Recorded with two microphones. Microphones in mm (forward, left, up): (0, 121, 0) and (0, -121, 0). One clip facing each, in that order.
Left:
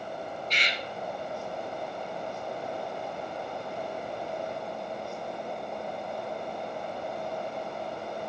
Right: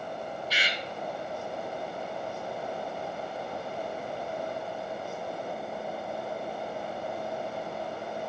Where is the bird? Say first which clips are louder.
Even; 5° right (ahead or behind), 0.7 m.